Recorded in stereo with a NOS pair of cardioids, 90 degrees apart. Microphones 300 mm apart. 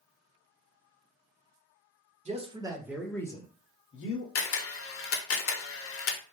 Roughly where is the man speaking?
Ahead.